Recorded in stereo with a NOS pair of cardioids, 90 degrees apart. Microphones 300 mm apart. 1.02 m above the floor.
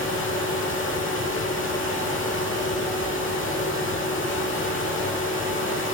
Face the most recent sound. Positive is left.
turn(degrees=45)